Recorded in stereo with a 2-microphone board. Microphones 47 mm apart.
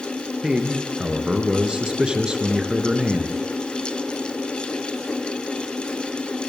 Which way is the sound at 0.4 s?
15° right (ahead or behind).